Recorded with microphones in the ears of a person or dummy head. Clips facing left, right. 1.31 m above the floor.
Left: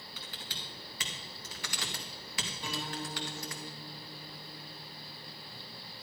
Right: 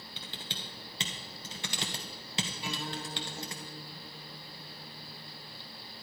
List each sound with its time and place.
0.2 s typing on a keyboard: 25° right (ahead or behind), 1.2 m
2.6 s a guitar: 5° right (ahead or behind), 4 m